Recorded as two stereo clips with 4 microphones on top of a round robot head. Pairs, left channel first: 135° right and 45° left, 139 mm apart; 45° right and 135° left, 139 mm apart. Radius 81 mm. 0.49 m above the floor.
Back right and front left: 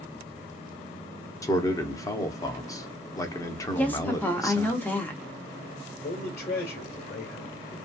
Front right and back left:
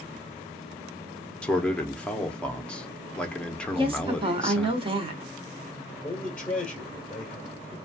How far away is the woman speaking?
About 0.9 m.